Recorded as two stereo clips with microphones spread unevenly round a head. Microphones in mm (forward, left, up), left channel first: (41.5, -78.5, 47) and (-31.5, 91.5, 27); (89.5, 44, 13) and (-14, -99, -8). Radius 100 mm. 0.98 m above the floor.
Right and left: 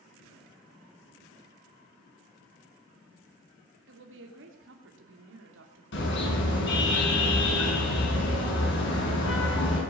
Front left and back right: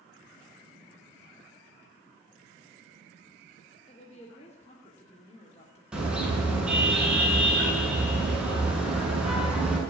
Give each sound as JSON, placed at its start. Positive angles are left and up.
{"t": 3.9, "sound": "a woman speaking", "azimuth_deg": 115, "distance_m": 2.5}
{"t": 5.9, "sound": "a car horn", "azimuth_deg": -40, "distance_m": 6.0}